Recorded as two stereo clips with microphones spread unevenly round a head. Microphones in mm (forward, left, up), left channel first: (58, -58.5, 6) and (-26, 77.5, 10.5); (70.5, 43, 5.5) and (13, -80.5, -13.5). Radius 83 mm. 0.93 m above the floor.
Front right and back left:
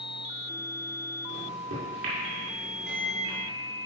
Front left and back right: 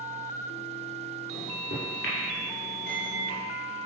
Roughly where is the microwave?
Left.